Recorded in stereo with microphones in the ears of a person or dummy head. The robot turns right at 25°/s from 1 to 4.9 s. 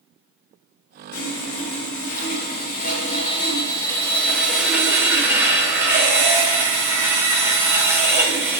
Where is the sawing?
100° left, 0.8 m; by 8.6 s 170° right, 0.8 m.